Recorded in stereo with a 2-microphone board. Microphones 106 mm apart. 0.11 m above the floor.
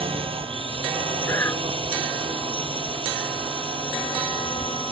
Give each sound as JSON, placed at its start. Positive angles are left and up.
{"t": 0.0, "sound": "a drone", "side_deg": -60}
{"t": 1.2, "sound": "breathing", "side_deg": 25}